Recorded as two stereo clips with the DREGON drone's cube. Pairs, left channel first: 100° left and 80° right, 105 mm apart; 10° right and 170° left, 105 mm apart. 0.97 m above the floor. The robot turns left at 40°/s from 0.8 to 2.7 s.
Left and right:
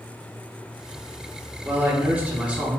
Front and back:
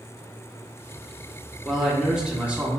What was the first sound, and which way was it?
A man speaking, 95° right.